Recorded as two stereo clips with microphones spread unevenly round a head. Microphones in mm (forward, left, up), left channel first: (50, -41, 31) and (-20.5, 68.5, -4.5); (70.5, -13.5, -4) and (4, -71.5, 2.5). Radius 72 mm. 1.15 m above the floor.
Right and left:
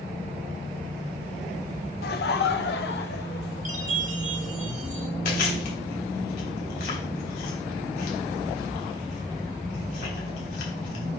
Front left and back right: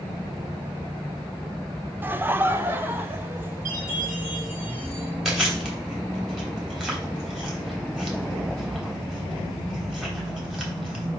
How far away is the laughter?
About 0.7 m.